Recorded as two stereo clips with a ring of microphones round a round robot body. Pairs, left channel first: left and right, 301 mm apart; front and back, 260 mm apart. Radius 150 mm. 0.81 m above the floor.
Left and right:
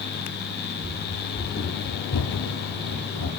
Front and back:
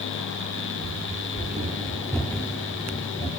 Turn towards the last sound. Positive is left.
turn(degrees=70)